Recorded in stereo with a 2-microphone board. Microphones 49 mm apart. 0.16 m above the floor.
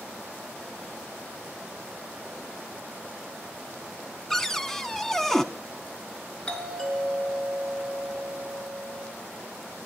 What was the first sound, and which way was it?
A cupboard door, 10° left (ahead or behind).